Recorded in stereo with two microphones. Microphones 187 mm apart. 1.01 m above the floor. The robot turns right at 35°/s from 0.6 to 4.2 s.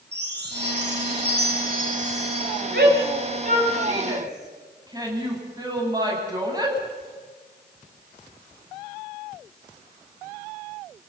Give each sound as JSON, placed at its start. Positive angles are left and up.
{"t": 0.1, "sound": "a chime", "azimuth_deg": -95, "distance_m": 3.0}
{"t": 2.7, "sound": "a shout", "side_deg": -75, "distance_m": 8.5}